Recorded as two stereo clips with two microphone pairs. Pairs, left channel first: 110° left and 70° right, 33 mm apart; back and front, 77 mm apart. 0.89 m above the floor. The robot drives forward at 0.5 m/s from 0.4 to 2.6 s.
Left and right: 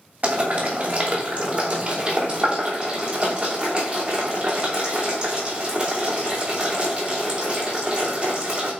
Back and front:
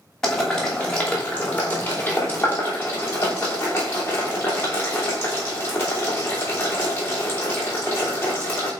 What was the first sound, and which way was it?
Boiling, 100° right.